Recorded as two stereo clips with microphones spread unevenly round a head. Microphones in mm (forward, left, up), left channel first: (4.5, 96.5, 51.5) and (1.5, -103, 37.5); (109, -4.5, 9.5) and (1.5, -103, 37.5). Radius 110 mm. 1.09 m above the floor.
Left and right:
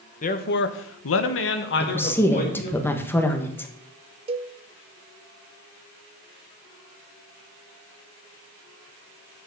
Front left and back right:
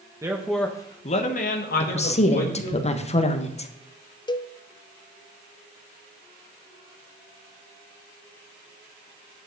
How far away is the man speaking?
About 1.1 m.